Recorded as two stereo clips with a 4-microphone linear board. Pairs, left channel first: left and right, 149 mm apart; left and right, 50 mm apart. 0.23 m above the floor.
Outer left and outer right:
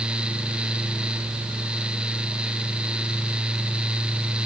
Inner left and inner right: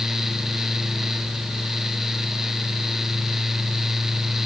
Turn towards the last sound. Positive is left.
No sound to turn to.